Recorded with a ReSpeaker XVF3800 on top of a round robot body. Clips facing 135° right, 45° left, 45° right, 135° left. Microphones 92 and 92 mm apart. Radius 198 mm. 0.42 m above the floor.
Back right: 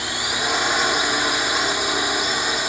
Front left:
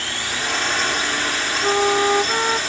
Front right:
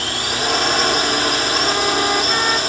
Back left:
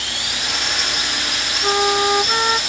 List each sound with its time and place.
0.0 s a drone: 65° right
1.6 s a flute: 70° left